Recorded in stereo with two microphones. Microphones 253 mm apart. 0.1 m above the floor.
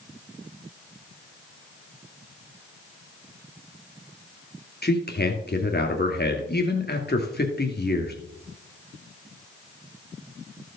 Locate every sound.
4.8 s a man speaking: 40° left (ahead or behind), 2.0 m